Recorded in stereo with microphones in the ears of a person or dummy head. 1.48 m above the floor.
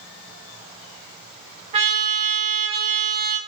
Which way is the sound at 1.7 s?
35° right (ahead or behind).